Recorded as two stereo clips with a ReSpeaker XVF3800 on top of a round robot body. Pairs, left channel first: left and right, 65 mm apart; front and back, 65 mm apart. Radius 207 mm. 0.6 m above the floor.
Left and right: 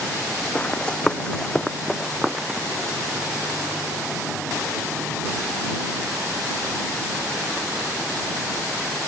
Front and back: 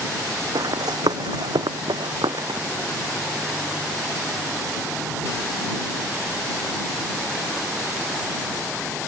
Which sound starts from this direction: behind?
Running footsteps, at 0.6 s.